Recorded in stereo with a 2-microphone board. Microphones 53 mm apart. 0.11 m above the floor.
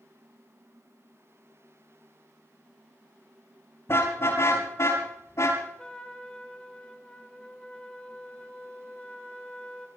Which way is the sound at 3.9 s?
55° left (ahead or behind).